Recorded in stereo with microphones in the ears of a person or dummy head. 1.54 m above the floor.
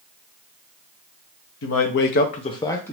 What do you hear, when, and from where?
1.6 s a man speaking: 65° left (ahead or behind), 0.7 m; by 2.9 s 15° left (ahead or behind), 0.8 m